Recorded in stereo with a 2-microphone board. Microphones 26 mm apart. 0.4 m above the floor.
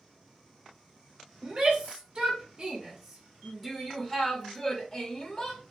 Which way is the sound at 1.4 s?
35° right (ahead or behind).